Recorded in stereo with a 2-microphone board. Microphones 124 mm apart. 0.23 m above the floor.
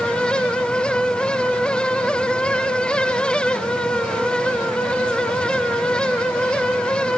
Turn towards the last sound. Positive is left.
No sound to turn to.